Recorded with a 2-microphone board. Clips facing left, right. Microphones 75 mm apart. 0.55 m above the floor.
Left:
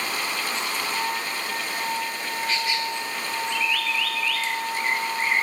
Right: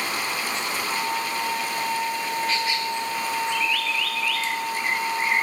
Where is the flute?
85° left, 6 m.